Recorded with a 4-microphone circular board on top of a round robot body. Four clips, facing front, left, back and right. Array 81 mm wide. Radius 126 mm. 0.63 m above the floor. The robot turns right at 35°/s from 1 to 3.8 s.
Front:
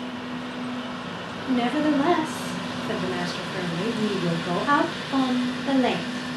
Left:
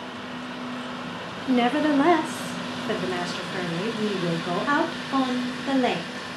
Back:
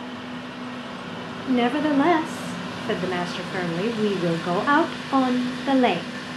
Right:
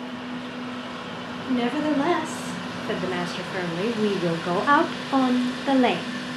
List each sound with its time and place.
1.5 s a woman speaking: 130° left, 0.6 m; by 6.1 s 150° right, 0.6 m